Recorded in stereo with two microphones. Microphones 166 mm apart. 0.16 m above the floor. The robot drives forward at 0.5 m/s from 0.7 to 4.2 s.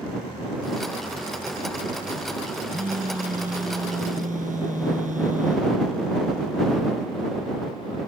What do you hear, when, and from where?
2.7 s a phone buzzing: 55° right (ahead or behind)